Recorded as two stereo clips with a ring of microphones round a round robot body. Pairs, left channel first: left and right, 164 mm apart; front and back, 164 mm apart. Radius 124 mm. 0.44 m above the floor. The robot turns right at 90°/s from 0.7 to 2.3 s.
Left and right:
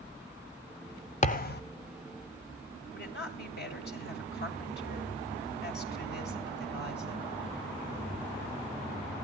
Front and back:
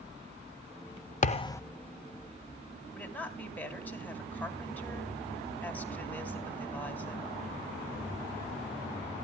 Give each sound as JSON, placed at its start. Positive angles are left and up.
{"t": 1.2, "sound": "a thud", "azimuth_deg": 45, "distance_m": 1.4}
{"t": 2.9, "sound": "a woman speaking", "azimuth_deg": 80, "distance_m": 3.5}